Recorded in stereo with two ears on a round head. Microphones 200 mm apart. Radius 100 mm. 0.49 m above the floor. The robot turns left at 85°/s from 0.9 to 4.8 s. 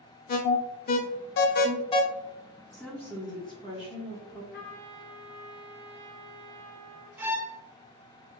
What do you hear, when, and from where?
0.3 s an alarm: 40° left (ahead or behind), 0.6 m; by 2.0 s 20° left (ahead or behind), 0.6 m
2.7 s a woman speaking: centre (ahead or behind), 1.1 m; by 4.4 s 10° left (ahead or behind), 1.1 m
4.5 s a trumpet: 40° left (ahead or behind), 1.3 m; by 7.1 s 20° left (ahead or behind), 1.3 m
7.2 s a violin: 10° right (ahead or behind), 0.7 m